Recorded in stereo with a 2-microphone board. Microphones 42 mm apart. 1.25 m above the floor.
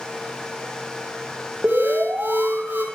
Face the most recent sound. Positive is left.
turn(degrees=-40)  # may be behind; listen again after turning